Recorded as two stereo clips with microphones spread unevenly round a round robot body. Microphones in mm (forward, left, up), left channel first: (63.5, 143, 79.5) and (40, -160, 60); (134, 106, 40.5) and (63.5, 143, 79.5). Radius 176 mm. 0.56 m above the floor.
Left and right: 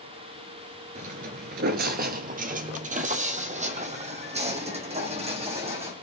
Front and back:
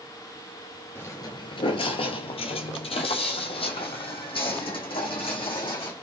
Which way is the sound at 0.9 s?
140° right.